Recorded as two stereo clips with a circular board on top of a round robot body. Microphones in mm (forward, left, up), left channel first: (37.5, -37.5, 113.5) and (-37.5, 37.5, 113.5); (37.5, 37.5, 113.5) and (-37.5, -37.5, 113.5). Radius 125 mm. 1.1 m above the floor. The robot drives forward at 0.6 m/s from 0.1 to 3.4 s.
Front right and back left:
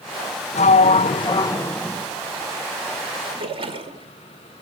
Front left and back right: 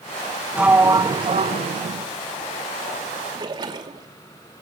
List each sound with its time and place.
0.5 s a sliding door: 55° right, 0.7 m; by 2.1 s 130° right, 0.8 m
3.3 s a splash: 175° left, 2.5 m